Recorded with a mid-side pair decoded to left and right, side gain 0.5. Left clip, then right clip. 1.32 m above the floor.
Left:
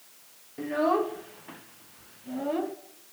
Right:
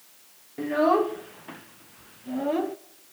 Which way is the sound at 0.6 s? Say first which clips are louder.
Right 4 dB; 25° right.